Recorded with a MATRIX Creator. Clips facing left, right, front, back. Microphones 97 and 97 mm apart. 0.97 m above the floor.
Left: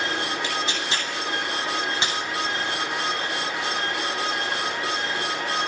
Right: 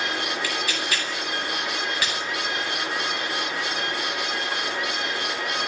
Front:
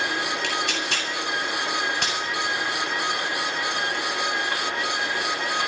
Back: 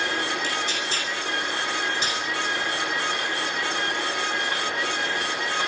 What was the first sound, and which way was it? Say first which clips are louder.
Tearing paper: left 1 dB, front 1 dB; 25° left.